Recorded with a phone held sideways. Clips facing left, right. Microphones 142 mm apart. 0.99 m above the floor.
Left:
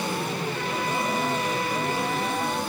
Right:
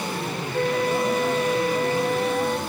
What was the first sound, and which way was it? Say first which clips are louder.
A flute: right 11 dB; 55° right (ahead or behind).